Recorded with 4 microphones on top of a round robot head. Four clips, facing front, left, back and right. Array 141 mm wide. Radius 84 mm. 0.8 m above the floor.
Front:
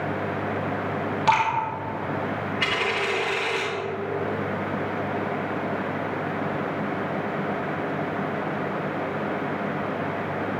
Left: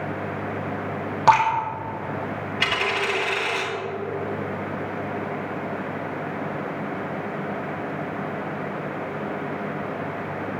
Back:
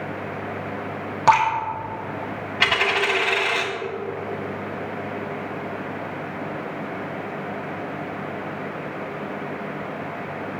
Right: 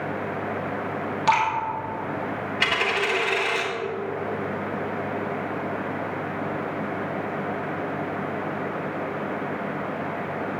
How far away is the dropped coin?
About 3 m.